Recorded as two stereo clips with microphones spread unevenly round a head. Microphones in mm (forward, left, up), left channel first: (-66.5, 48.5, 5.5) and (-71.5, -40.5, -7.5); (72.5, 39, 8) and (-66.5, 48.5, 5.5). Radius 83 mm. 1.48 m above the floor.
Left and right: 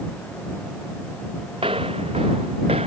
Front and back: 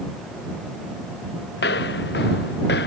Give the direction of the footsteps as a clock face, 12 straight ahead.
1 o'clock.